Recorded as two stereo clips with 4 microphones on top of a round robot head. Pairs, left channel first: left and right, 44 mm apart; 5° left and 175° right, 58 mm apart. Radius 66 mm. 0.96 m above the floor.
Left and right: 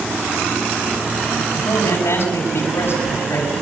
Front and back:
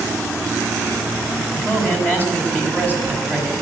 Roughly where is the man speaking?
Ahead left.